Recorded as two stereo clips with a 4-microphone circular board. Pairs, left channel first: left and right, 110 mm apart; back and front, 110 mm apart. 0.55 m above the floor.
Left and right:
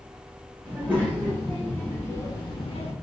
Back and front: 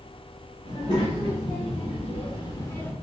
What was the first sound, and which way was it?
A child speaking, 160° right.